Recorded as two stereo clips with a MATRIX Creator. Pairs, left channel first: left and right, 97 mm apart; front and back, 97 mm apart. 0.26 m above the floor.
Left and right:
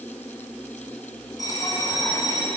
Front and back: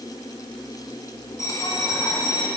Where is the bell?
50° left, 3 m.